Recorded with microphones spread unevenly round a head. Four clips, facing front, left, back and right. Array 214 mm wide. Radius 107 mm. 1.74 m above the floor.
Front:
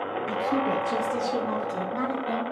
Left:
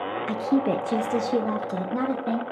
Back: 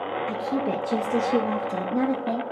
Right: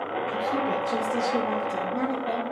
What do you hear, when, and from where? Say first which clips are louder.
0.3 s a woman speaking: left 5 dB, front 2 dB; 80° left, 0.8 m; by 2.4 s 130° left, 1.7 m